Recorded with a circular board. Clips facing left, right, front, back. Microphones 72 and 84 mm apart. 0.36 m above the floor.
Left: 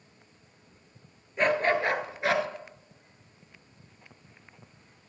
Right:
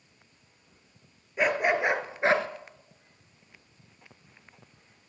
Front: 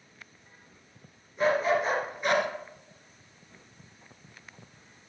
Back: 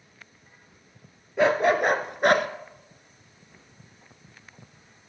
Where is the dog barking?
175° right, 1.4 m; by 2.5 s 140° right, 1.1 m.